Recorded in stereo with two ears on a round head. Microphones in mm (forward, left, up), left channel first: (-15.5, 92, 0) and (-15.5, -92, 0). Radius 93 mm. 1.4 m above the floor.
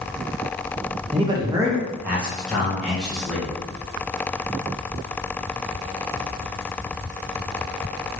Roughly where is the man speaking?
Right.